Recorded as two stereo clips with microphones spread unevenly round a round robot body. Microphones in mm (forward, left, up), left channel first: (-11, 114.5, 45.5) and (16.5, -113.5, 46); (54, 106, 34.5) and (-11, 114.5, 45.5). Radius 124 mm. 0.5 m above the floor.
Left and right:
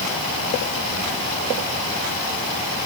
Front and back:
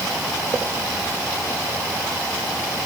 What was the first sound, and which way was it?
Only background noise.